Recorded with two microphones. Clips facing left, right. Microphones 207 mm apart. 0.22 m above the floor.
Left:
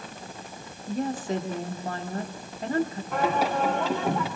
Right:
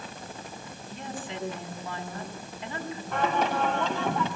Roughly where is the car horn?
I don't hear a car horn.